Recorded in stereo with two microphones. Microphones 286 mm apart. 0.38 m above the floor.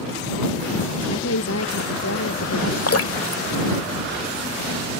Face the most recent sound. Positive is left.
turn(degrees=55)  # may be behind; listen again after turning